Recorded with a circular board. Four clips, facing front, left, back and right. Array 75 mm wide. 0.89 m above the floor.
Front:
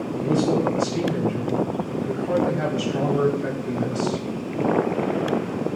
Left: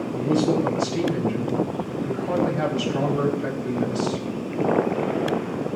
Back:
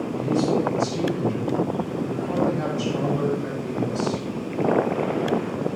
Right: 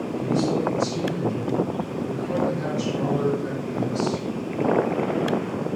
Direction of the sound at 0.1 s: 60° left.